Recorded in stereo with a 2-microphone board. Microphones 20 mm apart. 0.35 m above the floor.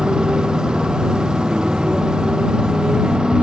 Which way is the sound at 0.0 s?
40° right (ahead or behind).